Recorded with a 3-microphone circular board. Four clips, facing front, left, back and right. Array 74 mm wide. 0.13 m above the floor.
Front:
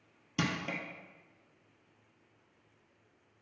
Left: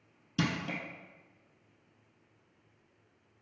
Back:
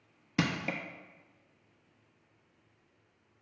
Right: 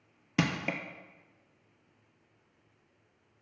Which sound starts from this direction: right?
Crushing, at 0.4 s.